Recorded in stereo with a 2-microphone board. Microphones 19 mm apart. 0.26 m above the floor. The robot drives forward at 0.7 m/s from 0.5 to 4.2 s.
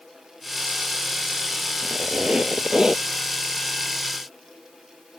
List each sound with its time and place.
1.8 s a squeak: 65° right (ahead or behind); by 3.0 s 30° right (ahead or behind)